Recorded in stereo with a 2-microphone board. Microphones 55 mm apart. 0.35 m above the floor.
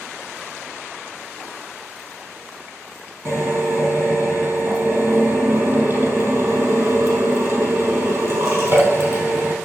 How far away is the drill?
About 4 m.